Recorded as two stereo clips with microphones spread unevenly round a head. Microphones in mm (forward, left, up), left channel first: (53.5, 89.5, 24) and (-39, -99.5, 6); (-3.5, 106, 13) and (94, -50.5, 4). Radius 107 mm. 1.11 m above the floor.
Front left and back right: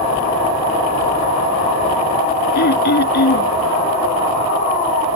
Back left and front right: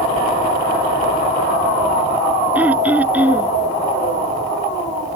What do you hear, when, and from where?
2.5 s throat clearing: 25° left